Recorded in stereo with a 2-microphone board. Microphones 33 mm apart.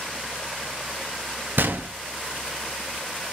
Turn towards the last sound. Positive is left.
turn(degrees=-70)  # may be behind; listen again after turning